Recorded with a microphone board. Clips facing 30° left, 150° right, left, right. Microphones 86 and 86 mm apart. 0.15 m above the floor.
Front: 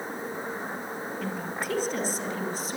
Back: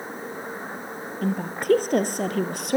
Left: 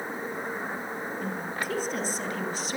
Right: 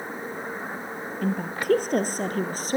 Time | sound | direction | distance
1.2 | a woman speaking | 110° right | 2.5 m